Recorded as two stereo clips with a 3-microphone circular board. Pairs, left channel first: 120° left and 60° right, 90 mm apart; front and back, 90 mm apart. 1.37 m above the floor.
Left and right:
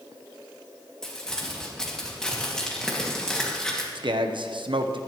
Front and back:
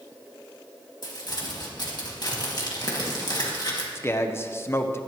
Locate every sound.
1.0 s crumpling: 40° left, 2 m
4.0 s a man speaking: 60° right, 0.9 m